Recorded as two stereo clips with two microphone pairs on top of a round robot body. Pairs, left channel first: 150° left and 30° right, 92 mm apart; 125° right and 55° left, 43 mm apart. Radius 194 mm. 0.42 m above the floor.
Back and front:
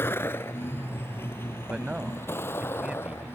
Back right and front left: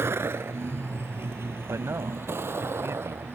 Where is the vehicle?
85° left.